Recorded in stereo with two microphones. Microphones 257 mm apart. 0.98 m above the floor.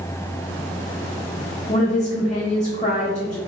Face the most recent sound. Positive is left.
turn(degrees=30)  # may be behind; listen again after turning